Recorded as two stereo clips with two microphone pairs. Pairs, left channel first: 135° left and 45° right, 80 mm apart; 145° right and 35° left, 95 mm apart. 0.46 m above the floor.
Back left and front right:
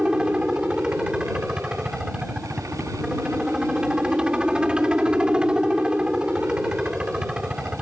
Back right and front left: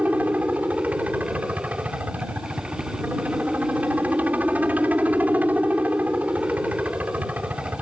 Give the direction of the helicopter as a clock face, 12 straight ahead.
12 o'clock.